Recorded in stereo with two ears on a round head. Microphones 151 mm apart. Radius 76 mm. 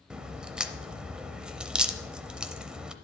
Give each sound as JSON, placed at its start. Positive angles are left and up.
{"t": 0.1, "sound": "a crack", "side_deg": -5, "distance_m": 0.6}